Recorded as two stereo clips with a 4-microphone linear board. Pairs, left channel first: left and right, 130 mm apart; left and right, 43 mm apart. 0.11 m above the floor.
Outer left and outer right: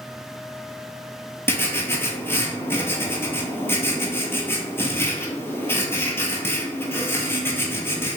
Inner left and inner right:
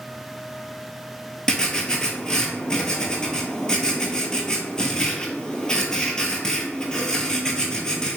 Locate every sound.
1.5 s writing: 20° left (ahead or behind), 0.5 m